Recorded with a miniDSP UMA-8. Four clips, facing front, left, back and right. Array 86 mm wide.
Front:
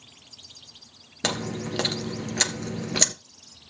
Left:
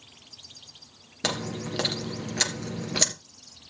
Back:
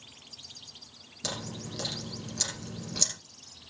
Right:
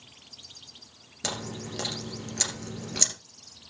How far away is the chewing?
About 1.2 m.